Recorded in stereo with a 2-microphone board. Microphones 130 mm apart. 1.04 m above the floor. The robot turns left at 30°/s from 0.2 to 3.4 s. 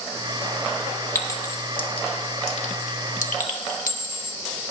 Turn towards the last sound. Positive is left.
turn(degrees=90)